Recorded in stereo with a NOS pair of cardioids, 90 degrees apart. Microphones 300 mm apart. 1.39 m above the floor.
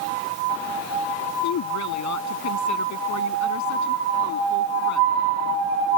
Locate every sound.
1.4 s a woman speaking: 65° left